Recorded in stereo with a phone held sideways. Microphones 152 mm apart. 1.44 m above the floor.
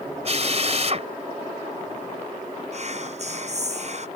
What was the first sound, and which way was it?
A drill, 45° right (ahead or behind).